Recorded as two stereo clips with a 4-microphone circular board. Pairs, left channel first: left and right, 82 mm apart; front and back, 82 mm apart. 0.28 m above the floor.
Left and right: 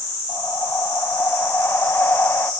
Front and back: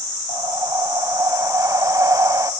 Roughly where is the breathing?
Behind left.